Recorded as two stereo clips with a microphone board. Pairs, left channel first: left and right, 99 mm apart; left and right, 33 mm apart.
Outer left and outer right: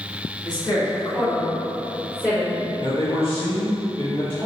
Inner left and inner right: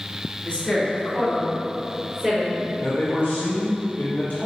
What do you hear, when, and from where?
0.5 s a woman speaking: 45° left (ahead or behind), 1.9 m; by 2.6 s 15° left (ahead or behind), 3 m
2.8 s a man speaking: 65° left (ahead or behind), 0.9 m